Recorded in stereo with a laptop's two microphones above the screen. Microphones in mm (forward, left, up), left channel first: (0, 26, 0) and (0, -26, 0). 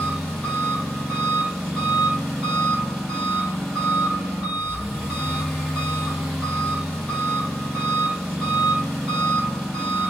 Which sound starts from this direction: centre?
An engine running, at 0.0 s.